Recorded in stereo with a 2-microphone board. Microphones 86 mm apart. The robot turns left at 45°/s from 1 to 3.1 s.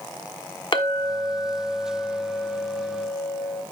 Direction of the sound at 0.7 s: 75° left.